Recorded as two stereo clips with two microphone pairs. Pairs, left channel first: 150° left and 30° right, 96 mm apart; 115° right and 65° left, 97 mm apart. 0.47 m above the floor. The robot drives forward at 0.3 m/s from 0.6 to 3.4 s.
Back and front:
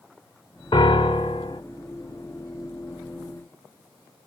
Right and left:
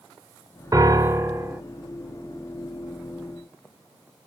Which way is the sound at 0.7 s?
120° left.